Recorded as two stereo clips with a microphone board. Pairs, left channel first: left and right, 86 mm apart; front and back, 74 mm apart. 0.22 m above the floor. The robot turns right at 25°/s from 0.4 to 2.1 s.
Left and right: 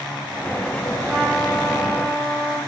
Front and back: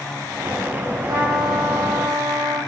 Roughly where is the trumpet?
Behind.